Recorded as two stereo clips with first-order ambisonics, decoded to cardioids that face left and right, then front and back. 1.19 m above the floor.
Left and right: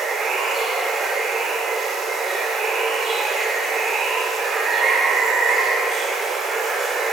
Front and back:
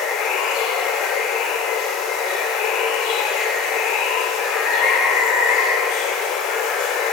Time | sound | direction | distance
0.0 | running water | 20° right | 1.5 m